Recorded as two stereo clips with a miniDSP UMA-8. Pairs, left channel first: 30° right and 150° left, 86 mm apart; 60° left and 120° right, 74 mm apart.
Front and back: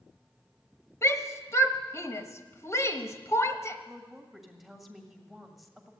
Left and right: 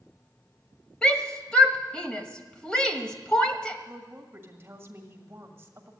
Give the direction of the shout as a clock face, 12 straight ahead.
12 o'clock.